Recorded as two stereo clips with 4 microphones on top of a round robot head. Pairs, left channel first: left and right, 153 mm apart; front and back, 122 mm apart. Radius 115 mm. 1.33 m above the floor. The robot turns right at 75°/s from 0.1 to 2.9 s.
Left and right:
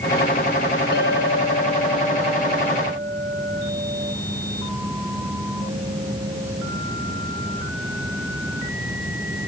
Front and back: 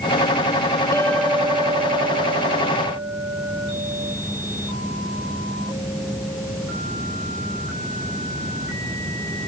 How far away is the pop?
No pop in this recording.